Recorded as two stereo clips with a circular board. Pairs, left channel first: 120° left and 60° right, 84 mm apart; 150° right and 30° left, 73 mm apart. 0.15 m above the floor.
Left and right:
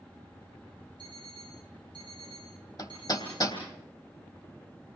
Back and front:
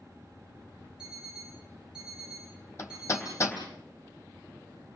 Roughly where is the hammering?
Behind.